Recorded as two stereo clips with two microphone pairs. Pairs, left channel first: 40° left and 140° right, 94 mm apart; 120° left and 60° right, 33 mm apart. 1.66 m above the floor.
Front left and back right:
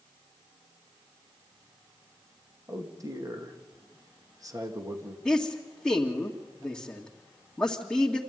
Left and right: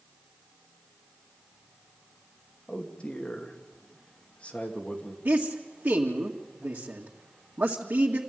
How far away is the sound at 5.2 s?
About 2 m.